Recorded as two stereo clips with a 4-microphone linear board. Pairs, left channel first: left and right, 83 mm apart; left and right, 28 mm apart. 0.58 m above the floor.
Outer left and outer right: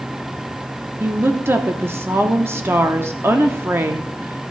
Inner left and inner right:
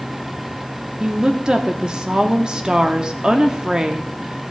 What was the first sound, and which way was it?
A woman speaking, 30° right (ahead or behind).